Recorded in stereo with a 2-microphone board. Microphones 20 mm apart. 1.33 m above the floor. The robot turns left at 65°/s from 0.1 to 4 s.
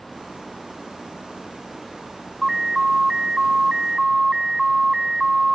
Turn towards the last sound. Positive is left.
turn(degrees=-130)